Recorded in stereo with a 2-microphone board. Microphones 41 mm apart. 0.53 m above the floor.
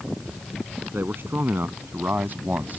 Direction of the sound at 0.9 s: 70° right (ahead or behind).